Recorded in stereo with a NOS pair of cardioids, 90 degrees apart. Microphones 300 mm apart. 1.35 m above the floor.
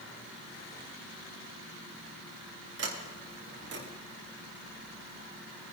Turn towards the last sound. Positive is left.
turn(degrees=-50)